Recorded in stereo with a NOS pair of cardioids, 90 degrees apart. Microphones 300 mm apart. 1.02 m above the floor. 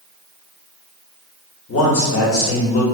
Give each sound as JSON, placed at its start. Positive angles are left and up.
{"t": 1.7, "sound": "a man speaking", "azimuth_deg": 50, "distance_m": 1.4}